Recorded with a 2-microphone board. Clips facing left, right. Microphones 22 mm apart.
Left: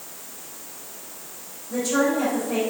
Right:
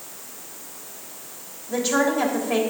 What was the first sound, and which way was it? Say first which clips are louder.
A woman speaking: right 1 dB; 40° right (ahead or behind).